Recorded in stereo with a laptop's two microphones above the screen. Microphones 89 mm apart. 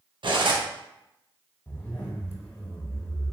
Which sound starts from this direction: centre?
A zipper, at 1.7 s.